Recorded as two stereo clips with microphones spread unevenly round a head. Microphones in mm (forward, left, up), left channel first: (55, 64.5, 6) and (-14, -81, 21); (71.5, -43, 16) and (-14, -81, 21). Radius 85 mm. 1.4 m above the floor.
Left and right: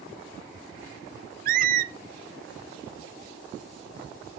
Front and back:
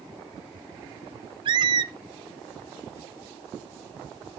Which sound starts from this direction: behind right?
A squeak, at 1.4 s.